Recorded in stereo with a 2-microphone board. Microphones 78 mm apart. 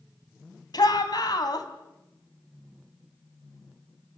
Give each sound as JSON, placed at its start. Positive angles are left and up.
{"t": 0.7, "sound": "a shout", "side_deg": 60, "distance_m": 3.5}